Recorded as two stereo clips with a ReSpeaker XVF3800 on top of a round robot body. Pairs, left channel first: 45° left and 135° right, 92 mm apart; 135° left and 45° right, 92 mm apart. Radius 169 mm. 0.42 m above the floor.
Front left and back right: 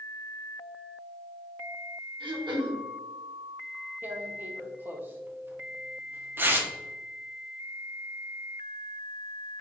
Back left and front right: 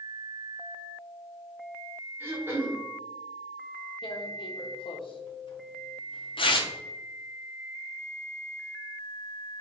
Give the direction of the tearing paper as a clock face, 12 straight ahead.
7 o'clock.